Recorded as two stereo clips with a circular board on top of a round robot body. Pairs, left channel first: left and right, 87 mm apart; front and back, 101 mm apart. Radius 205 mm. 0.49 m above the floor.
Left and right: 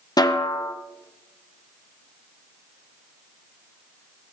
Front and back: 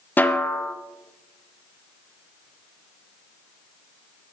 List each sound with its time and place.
0.2 s a snare drum: 65° left, 1.7 m